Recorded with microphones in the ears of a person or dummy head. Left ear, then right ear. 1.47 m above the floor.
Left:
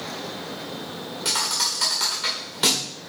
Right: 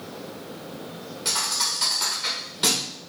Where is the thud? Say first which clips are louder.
Left 1 dB; 15° left (ahead or behind), 1.9 m.